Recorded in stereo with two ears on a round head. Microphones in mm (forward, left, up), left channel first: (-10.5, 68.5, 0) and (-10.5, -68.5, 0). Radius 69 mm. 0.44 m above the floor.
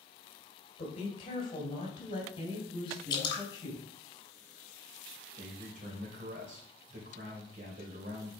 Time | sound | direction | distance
0.8 | a woman speaking | 40° left (ahead or behind) | 1.7 m
3.1 | dripping | 30° left (ahead or behind) | 1.6 m
5.4 | a man speaking | 55° right (ahead or behind) | 2.5 m